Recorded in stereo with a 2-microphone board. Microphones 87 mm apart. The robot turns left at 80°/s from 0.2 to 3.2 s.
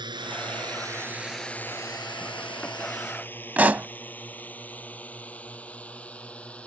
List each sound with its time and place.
0.0 s a drone: 60° right (ahead or behind); by 6.7 s 15° left (ahead or behind)
3.6 s a pop: 20° right (ahead or behind)